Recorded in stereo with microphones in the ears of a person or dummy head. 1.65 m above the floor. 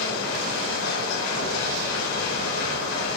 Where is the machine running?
75° left (ahead or behind), 4.5 m.